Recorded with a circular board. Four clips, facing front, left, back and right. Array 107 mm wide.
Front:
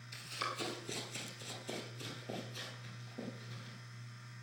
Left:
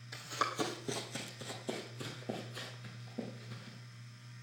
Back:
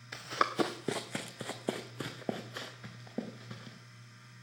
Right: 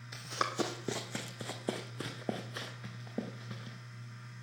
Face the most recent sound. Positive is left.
turn(degrees=-135)